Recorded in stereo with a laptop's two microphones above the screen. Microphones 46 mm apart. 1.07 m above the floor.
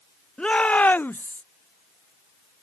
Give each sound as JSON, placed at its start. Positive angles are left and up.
{"t": 0.4, "sound": "a shout", "side_deg": 20}